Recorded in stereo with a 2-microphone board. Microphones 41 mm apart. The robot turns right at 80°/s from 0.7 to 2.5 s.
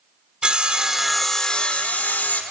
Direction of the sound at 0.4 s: 35° right.